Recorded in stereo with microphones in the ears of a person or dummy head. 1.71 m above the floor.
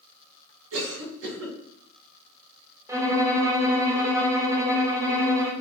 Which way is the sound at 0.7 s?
70° right (ahead or behind).